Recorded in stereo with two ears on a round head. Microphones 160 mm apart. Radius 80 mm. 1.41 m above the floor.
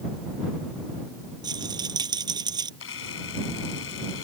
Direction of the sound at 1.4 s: 25° right (ahead or behind).